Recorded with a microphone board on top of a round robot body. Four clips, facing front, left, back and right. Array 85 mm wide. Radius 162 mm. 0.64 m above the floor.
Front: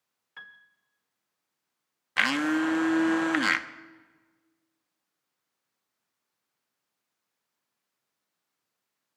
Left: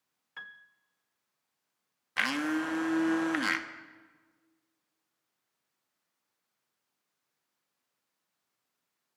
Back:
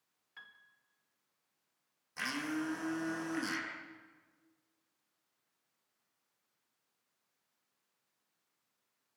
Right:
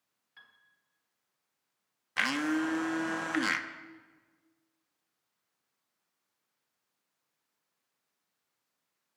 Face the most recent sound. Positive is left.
turn(degrees=5)